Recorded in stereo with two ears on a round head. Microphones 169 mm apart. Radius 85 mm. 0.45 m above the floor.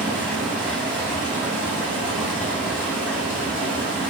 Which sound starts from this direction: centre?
Running water, at 0.0 s.